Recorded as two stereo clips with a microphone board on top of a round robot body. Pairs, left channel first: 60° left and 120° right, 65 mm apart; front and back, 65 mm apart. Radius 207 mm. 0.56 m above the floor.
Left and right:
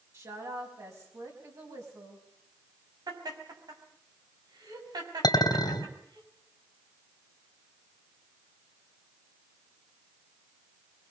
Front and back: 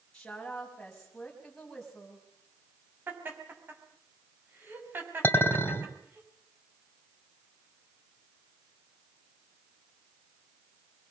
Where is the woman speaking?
80° right, 5.5 m; by 2.2 s 90° right, 6 m.